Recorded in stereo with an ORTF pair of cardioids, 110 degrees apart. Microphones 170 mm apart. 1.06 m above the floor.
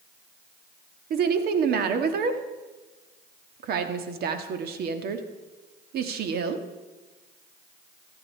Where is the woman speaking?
65° right, 1.7 m.